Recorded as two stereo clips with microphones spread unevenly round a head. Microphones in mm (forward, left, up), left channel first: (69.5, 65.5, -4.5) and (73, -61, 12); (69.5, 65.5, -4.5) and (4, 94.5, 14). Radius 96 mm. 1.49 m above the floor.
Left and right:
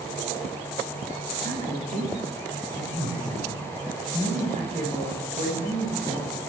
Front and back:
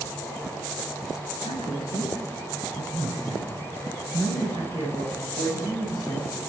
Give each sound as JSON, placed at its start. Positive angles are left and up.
{"t": 1.4, "sound": "a man speaking", "azimuth_deg": -65, "distance_m": 10.0}